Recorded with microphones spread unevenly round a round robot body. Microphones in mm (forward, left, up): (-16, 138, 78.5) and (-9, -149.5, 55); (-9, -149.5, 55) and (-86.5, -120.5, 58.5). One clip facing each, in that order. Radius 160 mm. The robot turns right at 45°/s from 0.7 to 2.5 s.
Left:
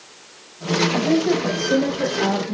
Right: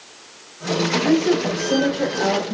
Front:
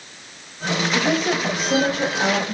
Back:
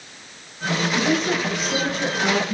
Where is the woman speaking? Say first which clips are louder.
Right 2 dB, front 1 dB; 35° right, 1.8 m; by 2.5 s 35° left, 1.8 m.